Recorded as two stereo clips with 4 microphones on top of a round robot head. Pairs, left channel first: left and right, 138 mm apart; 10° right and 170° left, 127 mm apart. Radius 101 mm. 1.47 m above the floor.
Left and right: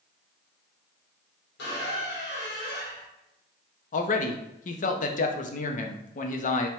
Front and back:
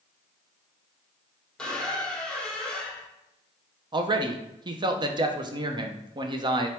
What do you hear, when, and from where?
1.6 s a squeak: 75° left, 1.3 m
3.9 s a man speaking: 115° left, 0.6 m